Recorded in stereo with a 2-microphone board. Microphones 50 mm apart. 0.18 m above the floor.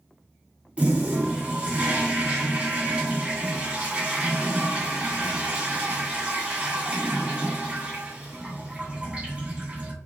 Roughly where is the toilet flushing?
Right.